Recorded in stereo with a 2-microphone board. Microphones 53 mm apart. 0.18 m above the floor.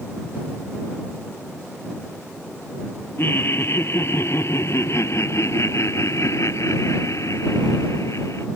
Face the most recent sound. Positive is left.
turn(degrees=65)  # may be behind; listen again after turning